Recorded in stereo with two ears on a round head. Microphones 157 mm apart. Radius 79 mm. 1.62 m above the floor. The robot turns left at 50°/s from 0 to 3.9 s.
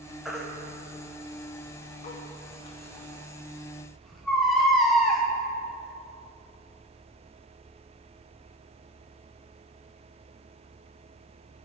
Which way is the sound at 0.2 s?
Centre (ahead or behind).